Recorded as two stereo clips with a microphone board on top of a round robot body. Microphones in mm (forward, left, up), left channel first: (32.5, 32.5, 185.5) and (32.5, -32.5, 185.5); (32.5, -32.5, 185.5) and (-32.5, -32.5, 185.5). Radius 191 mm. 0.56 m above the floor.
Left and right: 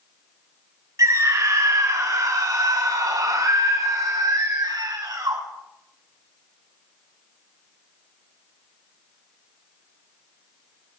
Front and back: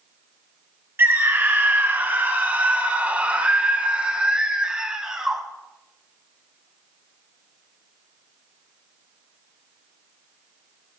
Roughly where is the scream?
Behind right.